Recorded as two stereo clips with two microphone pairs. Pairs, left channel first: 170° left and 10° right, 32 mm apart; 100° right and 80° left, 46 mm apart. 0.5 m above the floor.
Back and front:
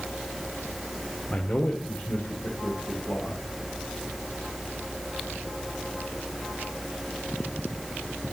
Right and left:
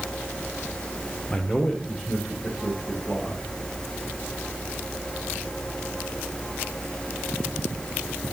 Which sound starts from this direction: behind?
A man speaking, at 1.3 s.